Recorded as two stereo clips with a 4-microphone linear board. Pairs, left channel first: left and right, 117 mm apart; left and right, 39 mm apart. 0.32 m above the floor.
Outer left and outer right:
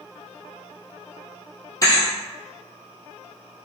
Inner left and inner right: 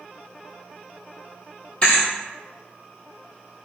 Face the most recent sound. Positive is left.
turn(degrees=30)  # may be behind; listen again after turning